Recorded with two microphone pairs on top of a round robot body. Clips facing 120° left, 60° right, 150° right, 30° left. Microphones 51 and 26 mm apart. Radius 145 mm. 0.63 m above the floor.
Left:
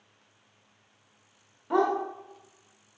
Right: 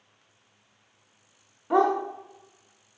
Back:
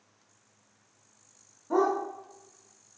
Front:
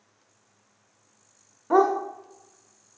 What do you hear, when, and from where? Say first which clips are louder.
1.7 s a dog barking: right 3 dB, front 6 dB; 20° left, 0.6 m